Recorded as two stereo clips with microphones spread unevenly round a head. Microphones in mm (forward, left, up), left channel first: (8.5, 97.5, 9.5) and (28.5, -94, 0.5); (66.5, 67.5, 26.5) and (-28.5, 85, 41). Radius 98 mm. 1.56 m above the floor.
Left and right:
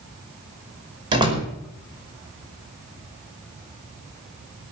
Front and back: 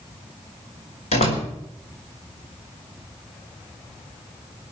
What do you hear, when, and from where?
1.1 s a door slam: 15° right, 5 m